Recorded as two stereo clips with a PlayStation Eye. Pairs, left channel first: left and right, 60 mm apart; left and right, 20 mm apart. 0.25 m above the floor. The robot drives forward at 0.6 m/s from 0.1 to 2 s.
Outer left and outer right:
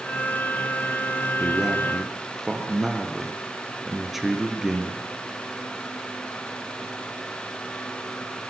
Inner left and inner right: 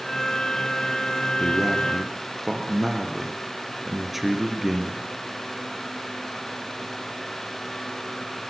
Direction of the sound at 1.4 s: 5° right (ahead or behind).